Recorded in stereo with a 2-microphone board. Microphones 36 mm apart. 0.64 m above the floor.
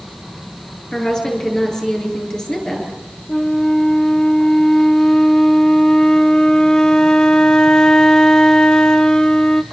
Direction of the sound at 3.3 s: 20° left (ahead or behind).